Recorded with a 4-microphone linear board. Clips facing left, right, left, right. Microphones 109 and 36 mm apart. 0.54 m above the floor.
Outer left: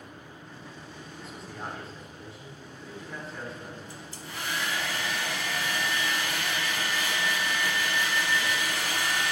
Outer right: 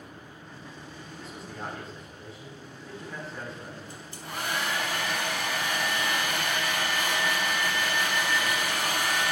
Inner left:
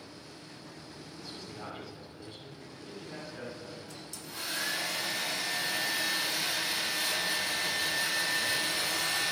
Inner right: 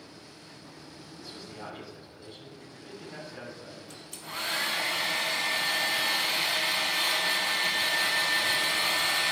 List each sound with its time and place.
1.2 s a man speaking: centre (ahead or behind), 5.5 m
3.9 s a hair dryer: 55° right (ahead or behind), 1.9 m